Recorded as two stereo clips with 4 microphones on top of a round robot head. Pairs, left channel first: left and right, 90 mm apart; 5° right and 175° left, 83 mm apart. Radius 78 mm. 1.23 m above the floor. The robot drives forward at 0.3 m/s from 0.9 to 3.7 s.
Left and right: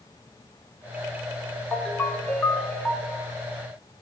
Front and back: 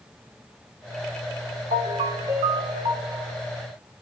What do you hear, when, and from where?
1.7 s a ringtone: 165° left, 1.2 m; by 3.3 s 170° left, 1.6 m